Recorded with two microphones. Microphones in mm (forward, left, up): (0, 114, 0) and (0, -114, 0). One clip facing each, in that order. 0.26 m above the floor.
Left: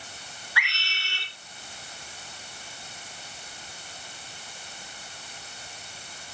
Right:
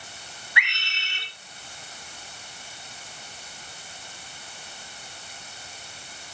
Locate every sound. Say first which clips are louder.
0.6 s a scream: right 3 dB; 20° right (ahead or behind), 4.5 m